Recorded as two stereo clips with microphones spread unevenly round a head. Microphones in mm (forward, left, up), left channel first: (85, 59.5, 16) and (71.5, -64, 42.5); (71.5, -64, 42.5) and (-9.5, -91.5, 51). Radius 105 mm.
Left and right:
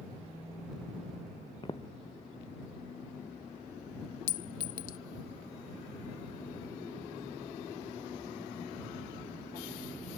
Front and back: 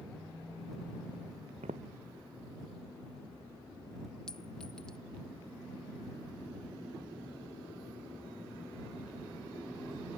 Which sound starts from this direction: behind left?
Footsteps, at 1.6 s.